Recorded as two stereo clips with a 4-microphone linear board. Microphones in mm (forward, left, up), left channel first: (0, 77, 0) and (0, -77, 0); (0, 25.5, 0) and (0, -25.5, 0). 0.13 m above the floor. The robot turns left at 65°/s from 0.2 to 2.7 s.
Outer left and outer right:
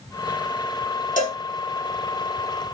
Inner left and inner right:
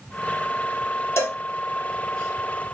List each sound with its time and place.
1.2 s a cowbell: 55° left (ahead or behind), 2.0 m; by 1.4 s 40° left (ahead or behind), 2.0 m